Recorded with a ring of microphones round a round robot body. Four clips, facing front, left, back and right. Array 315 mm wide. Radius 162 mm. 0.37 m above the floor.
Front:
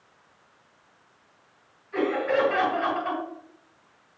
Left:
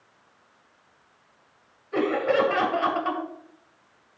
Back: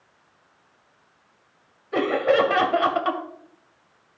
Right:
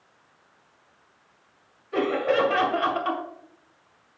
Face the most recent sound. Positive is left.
turn(degrees=-175)